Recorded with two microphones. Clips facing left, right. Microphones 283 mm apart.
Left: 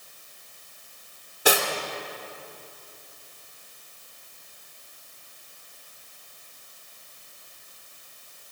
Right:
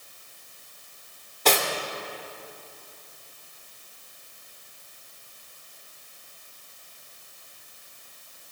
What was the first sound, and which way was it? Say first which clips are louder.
Cutlery clinking: left 1 dB; 10° left (ahead or behind).